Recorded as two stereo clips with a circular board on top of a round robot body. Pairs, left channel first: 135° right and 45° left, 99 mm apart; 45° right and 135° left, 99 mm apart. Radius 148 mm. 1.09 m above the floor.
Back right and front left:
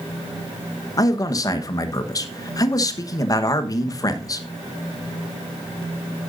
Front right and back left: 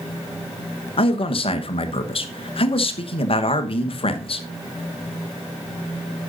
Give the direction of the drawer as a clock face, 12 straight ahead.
No drawer in this recording.